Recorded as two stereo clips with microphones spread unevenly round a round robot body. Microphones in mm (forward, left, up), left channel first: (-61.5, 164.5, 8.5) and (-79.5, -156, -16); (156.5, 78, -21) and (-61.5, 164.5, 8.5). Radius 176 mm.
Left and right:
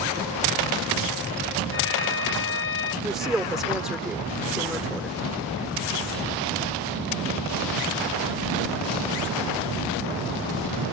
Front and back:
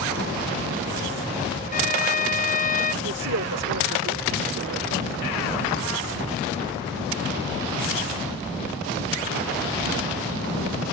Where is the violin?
35° left.